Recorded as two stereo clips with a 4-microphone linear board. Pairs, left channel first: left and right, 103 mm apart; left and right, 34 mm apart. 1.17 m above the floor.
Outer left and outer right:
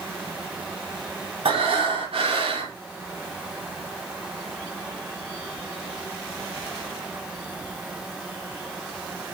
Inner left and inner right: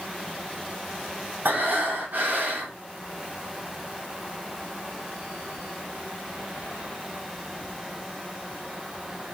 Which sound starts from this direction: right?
Breathing, at 1.4 s.